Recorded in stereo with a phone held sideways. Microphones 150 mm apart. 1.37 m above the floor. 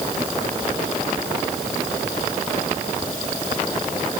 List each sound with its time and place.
Only background noise.